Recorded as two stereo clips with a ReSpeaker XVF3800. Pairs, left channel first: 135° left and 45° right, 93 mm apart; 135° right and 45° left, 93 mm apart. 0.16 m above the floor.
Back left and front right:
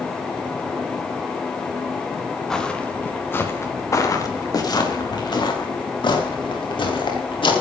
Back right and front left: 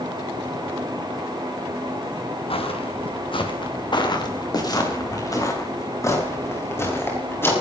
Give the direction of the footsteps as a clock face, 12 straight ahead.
5 o'clock.